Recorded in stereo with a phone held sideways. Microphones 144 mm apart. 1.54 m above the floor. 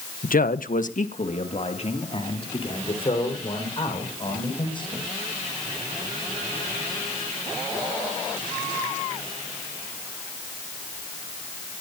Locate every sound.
0.2 s a man speaking: 70° left (ahead or behind), 0.9 m; by 5.1 s 35° left (ahead or behind), 7.5 m